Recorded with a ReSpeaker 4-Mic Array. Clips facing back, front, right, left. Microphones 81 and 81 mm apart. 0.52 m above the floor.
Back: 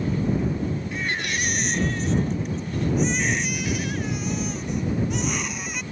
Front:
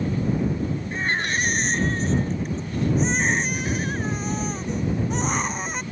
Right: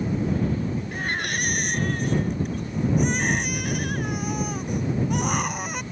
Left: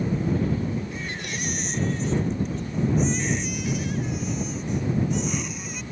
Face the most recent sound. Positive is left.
turn(degrees=-55)